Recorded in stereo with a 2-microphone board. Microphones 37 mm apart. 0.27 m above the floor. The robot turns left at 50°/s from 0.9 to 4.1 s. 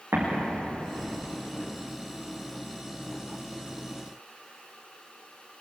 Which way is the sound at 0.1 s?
80° right.